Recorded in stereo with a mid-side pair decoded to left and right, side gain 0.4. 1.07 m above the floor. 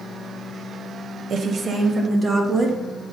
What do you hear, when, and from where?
1.3 s a woman speaking: 65° right, 0.9 m; by 2.8 s 50° right, 2 m